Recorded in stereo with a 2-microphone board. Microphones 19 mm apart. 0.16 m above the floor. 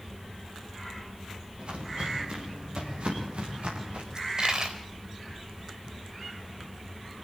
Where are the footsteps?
65° right (ahead or behind), 7 m; by 4.0 s 80° right, 9 m.